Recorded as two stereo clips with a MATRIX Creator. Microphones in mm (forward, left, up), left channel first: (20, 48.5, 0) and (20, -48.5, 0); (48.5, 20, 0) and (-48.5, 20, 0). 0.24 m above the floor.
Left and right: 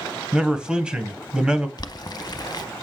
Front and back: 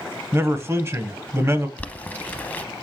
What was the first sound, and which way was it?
A man speaking, 165° right.